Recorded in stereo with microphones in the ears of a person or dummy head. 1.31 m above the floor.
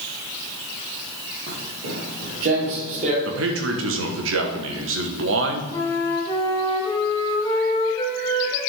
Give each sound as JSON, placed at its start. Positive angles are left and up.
{"t": 1.5, "sound": "footsteps", "side_deg": -45, "distance_m": 2.0}
{"t": 3.2, "sound": "a man speaking", "side_deg": -70, "distance_m": 1.3}
{"t": 5.7, "sound": "a flute", "side_deg": 20, "distance_m": 2.5}